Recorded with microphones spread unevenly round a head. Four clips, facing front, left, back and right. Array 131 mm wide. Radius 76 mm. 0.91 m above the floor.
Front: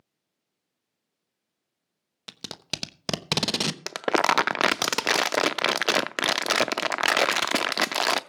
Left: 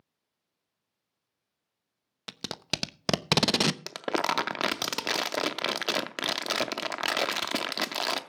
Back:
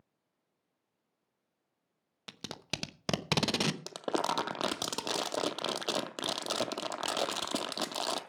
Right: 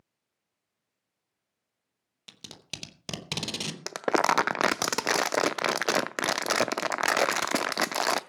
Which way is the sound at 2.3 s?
70° left.